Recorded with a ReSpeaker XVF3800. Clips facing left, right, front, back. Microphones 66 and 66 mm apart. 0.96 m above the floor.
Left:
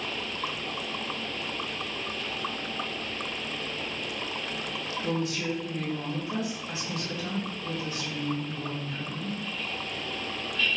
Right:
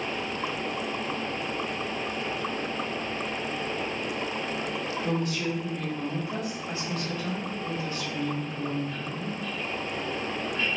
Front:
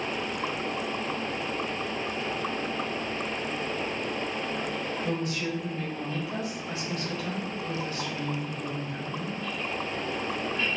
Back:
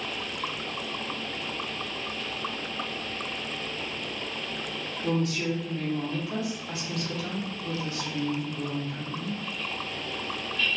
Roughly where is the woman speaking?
Behind.